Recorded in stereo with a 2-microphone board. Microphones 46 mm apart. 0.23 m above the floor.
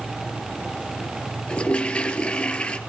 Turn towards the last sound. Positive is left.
turn(degrees=20)  # may be behind; listen again after turning